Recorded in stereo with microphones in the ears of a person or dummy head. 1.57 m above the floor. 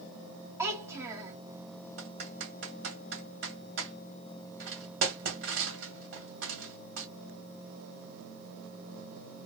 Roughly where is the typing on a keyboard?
Right.